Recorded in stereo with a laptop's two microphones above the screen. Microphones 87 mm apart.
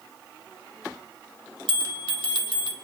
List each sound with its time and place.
1.7 s a bell: 70° right (ahead or behind), 1.4 m